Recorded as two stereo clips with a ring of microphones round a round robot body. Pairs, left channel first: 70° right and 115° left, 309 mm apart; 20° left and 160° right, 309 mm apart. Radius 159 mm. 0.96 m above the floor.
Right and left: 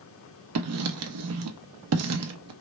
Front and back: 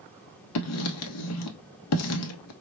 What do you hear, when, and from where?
0.6 s writing: 65° left, 0.6 m